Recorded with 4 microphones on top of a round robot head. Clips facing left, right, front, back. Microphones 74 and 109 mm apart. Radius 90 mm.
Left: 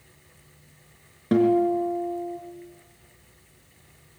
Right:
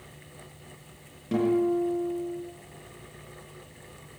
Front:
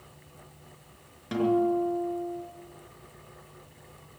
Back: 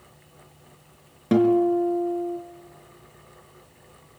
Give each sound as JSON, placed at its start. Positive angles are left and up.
{"t": 1.3, "sound": "a guitar", "azimuth_deg": 145, "distance_m": 4.0}